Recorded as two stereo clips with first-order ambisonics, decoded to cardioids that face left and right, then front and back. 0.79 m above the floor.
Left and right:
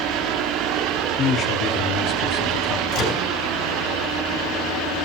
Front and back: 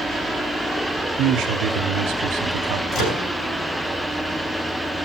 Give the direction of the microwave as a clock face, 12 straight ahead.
10 o'clock.